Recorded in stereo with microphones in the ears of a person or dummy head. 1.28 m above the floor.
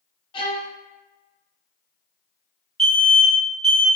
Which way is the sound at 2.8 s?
5° left (ahead or behind).